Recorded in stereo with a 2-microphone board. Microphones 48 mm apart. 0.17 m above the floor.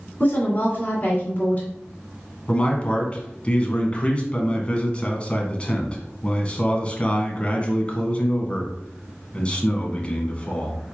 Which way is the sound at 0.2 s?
35° left (ahead or behind).